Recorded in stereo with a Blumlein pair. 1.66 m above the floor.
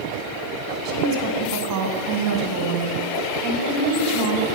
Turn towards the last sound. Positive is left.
turn(degrees=-40)